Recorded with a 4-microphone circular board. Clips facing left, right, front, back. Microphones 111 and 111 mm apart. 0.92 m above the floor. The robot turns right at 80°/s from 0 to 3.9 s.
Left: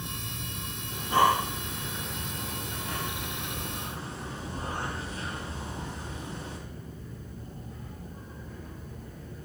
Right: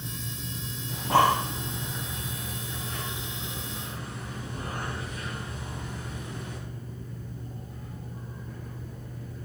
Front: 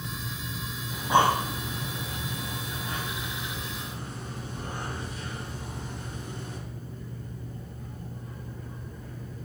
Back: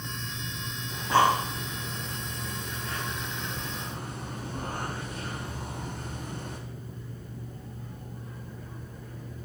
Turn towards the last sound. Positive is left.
turn(degrees=150)